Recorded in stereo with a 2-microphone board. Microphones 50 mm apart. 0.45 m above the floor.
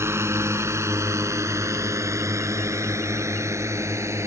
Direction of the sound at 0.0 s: 65° right (ahead or behind).